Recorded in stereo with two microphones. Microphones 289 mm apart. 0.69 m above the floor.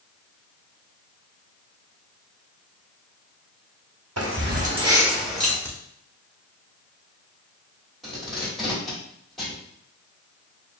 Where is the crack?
10° left (ahead or behind), 1.3 m.